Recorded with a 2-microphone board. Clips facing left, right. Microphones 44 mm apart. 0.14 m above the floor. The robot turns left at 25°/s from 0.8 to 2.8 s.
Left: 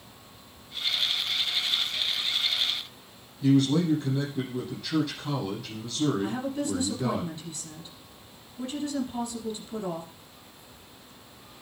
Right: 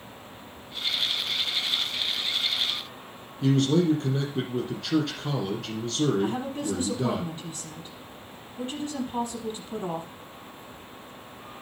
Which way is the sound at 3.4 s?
65° right (ahead or behind).